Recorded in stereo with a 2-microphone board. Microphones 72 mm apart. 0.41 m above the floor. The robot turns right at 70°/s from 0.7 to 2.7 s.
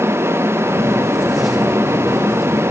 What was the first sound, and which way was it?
Only background noise.